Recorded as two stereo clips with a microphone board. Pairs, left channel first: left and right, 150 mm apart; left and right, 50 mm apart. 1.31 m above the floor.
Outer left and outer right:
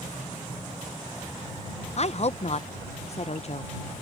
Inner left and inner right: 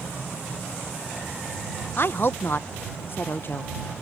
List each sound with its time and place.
2.0 s a woman speaking: 50° left (ahead or behind)